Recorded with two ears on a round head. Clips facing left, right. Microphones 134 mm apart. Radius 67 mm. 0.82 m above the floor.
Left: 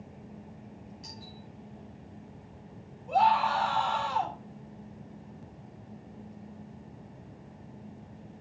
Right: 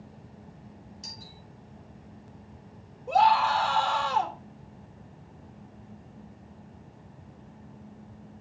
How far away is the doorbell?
About 5 m.